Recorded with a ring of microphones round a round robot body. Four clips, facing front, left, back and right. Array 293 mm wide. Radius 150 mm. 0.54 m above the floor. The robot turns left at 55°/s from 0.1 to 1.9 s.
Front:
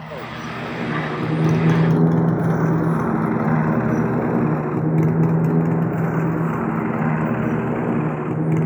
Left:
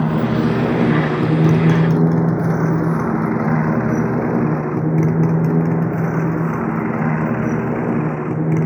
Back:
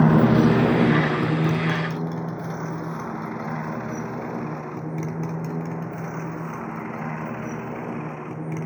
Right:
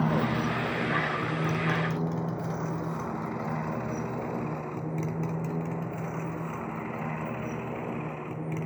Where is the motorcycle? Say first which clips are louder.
Left 10 dB, back 15 dB; 155° left; by 8.7 s 60° left.